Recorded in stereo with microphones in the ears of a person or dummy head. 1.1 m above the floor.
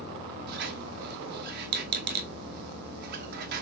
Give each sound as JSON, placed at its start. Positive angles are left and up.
{"t": 0.5, "sound": "a squeak", "side_deg": -55, "distance_m": 0.9}